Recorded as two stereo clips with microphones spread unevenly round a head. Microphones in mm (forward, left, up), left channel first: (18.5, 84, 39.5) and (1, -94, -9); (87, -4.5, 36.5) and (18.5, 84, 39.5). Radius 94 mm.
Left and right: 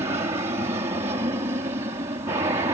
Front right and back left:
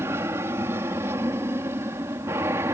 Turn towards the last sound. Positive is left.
turn(degrees=-160)